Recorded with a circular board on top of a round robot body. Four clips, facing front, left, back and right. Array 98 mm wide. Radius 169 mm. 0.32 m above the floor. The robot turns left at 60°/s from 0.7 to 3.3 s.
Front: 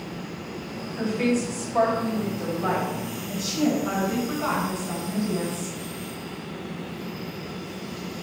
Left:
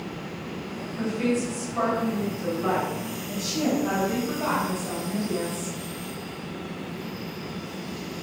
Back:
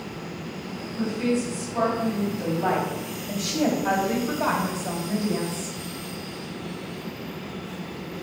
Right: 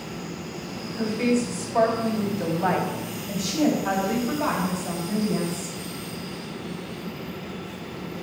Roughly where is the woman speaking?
Ahead.